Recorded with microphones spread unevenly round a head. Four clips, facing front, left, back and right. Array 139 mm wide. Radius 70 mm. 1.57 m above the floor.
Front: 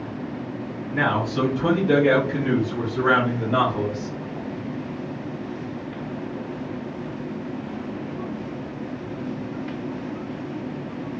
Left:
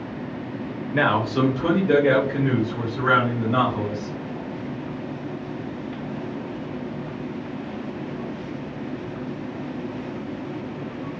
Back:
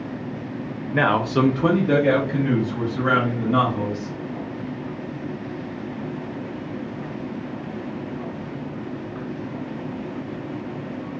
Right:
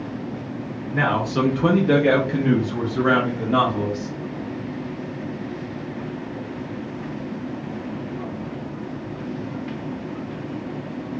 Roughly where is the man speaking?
Behind left.